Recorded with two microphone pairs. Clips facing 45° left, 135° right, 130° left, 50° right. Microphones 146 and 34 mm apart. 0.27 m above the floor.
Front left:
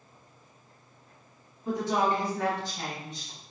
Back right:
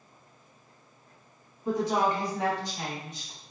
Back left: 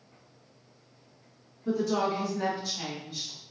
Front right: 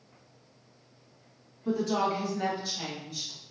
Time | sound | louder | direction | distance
1.6 | a woman speaking | back right 1 dB, even | 65° right | 1.8 m